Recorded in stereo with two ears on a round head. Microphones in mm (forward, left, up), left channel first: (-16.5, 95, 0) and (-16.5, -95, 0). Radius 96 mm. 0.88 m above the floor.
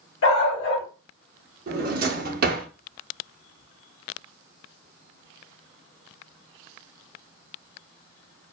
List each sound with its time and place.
0.2 s a dog barking: 60° left (ahead or behind), 1.3 m
1.7 s a drawer: 45° right (ahead or behind), 0.7 m